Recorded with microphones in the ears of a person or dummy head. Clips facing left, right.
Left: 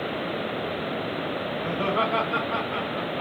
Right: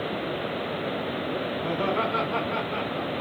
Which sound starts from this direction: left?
Laughter, at 1.6 s.